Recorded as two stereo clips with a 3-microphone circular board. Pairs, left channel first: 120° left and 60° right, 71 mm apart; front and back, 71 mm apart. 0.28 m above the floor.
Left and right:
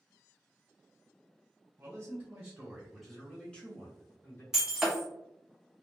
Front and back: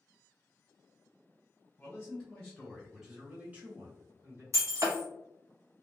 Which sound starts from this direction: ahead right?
A man speaking, at 1.8 s.